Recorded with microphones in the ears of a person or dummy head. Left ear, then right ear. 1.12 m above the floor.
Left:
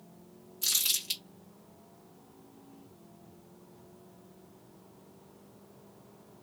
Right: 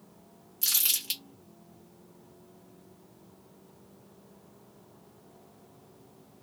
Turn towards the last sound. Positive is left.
turn(degrees=-20)  # may be behind; listen again after turning